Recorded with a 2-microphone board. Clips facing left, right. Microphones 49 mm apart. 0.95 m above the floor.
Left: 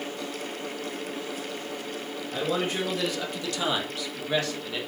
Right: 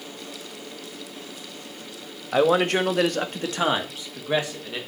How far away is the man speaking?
About 1.5 m.